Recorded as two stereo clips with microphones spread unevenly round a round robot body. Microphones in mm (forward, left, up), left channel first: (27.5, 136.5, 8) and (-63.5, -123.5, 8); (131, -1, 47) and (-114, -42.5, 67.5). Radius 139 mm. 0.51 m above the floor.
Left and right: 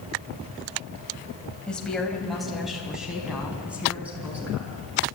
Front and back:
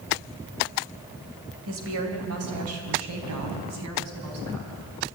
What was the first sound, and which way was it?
A woman speaking, 155° left.